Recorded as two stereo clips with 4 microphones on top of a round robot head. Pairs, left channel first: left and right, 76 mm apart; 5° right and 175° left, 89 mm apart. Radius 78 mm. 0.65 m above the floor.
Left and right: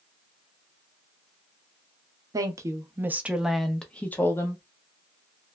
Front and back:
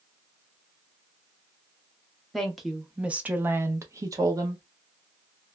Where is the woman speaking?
90° right, 0.8 m; by 4.6 s 135° left, 0.9 m.